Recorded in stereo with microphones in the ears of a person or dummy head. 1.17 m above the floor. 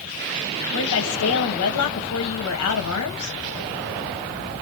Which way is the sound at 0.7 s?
65° left (ahead or behind).